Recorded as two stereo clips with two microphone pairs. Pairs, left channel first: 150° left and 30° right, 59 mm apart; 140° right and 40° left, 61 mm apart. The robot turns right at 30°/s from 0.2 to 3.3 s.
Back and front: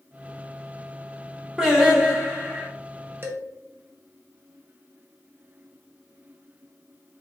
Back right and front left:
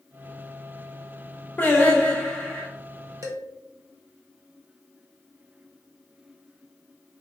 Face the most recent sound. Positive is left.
turn(degrees=20)